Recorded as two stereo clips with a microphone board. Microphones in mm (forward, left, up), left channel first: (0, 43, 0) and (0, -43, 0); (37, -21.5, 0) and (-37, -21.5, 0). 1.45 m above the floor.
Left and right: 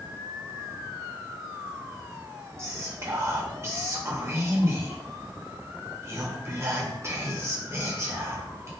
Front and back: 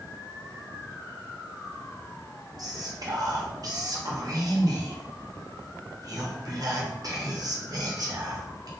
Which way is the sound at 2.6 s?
145° right.